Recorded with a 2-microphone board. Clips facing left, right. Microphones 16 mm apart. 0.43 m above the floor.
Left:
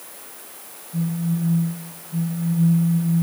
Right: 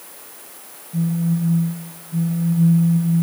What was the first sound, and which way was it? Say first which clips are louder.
A phone buzzing: right 3 dB; 15° right (ahead or behind).